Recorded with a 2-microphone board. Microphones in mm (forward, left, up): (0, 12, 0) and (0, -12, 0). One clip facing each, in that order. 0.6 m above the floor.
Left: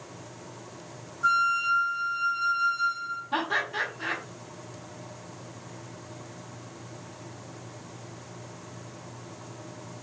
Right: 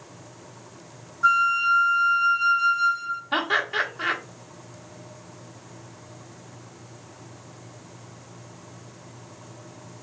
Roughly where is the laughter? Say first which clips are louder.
Right 5 dB; right.